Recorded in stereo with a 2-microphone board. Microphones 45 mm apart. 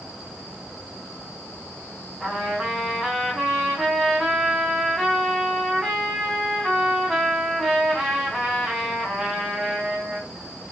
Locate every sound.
2.2 s a trumpet: centre (ahead or behind), 5.5 m